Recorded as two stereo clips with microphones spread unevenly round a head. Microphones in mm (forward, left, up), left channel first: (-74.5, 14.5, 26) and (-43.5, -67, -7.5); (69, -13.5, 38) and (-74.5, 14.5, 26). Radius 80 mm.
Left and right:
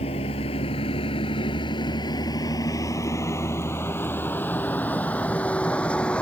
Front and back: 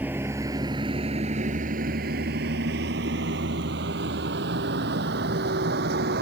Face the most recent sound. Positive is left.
turn(degrees=-170)